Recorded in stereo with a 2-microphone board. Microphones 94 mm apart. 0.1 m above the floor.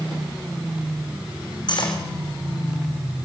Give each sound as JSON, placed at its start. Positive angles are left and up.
{"t": 1.7, "sound": "cutlery clinking", "side_deg": 55, "distance_m": 4.5}